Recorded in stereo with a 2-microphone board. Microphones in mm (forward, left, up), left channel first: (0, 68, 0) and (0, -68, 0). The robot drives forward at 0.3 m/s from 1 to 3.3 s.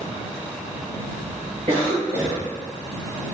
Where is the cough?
50° right (ahead or behind), 0.9 m.